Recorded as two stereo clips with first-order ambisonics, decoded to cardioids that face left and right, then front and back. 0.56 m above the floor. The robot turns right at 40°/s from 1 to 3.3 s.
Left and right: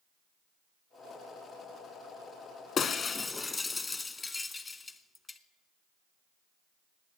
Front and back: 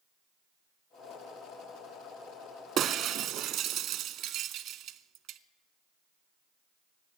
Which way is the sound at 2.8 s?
140° left.